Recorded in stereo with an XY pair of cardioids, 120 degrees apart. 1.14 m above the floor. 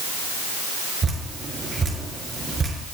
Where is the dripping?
30° right, 5.5 m.